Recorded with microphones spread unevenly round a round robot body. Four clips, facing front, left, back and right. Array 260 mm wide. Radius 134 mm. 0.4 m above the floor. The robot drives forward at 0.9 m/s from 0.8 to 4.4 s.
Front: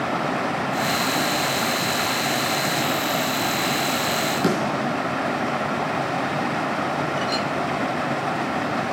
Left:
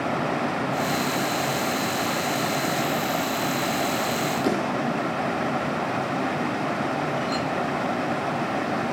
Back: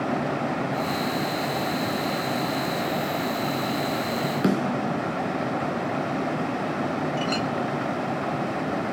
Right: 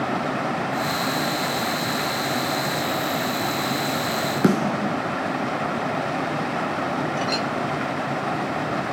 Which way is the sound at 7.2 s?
110° right.